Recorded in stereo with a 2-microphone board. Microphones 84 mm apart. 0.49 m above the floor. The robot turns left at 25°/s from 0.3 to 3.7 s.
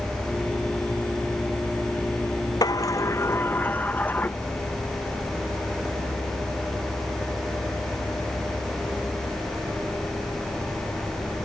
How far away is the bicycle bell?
I don't hear a bicycle bell.